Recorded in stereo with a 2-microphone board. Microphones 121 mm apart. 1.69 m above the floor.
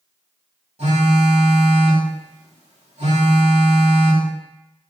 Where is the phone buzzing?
60° right (ahead or behind), 2.5 m.